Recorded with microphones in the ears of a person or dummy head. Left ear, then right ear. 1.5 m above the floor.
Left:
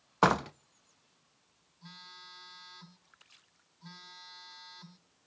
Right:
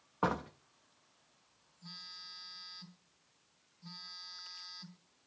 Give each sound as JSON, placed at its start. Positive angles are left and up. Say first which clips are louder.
{"t": 0.2, "sound": "a door slam", "louder": "left 8 dB", "side_deg": 75, "distance_m": 0.9}
{"t": 1.8, "sound": "a phone buzzing", "louder": "right 2 dB", "side_deg": 40, "distance_m": 1.9}